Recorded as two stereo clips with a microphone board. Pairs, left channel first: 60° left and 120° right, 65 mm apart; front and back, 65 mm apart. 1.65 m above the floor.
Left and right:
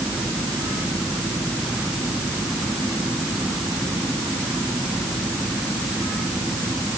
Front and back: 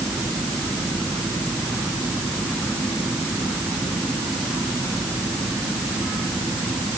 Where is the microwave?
No microwave in this recording.